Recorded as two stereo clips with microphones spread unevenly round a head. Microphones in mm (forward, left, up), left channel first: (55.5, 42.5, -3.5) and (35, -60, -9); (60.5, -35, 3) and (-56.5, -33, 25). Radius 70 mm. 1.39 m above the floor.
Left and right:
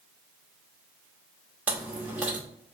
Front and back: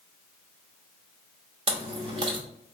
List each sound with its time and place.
1.7 s chewing: straight behind, 1.1 m